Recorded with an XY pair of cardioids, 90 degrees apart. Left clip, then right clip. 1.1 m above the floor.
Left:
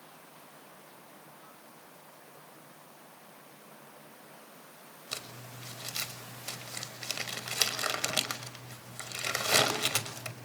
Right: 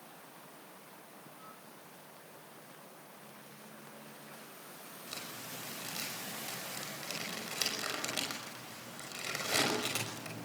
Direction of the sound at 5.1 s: 60° left.